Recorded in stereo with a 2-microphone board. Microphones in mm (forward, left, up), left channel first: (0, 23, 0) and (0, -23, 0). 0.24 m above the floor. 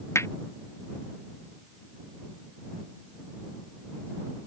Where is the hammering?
80° left.